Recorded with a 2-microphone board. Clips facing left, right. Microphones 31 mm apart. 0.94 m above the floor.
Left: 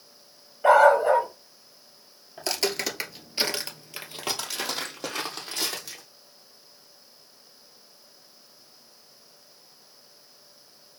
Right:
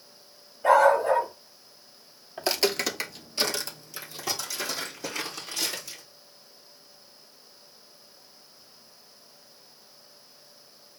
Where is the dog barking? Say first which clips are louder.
Left 2 dB; 35° left (ahead or behind), 1.1 m.